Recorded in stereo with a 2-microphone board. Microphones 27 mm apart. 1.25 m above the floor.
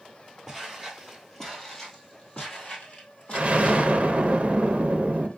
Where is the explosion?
45° right (ahead or behind), 0.6 m.